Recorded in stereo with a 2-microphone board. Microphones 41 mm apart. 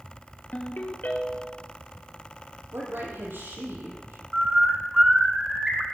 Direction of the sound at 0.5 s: 50° left (ahead or behind).